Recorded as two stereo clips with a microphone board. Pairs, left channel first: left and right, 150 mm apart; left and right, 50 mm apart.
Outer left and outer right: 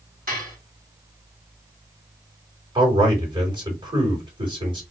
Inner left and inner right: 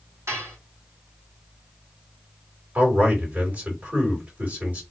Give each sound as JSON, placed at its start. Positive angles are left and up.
{"t": 0.3, "sound": "dishes clattering", "side_deg": -80, "distance_m": 3.0}
{"t": 2.8, "sound": "a man speaking", "side_deg": -35, "distance_m": 2.5}